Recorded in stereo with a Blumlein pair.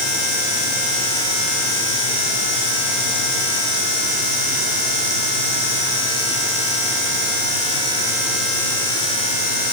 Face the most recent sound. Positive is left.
No sound to turn to.